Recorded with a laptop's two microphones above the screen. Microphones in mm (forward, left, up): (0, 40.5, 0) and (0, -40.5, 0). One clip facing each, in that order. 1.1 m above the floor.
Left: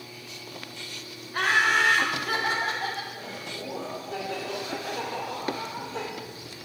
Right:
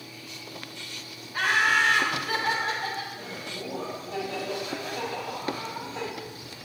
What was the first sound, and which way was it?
Laughter, 65° left (ahead or behind).